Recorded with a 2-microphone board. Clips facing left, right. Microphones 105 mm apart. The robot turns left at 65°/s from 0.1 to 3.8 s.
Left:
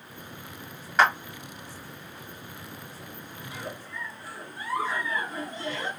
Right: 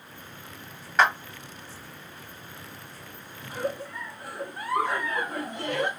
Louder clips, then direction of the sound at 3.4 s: Right 9 dB; 35° right (ahead or behind).